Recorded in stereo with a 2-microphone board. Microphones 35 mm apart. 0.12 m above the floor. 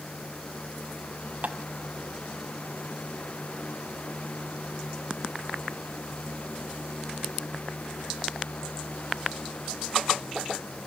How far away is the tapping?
About 1.1 m.